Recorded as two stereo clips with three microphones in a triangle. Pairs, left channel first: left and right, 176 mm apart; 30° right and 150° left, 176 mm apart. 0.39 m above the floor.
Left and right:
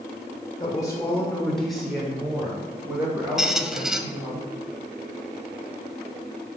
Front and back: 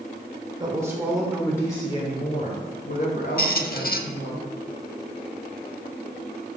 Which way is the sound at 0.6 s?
120° left.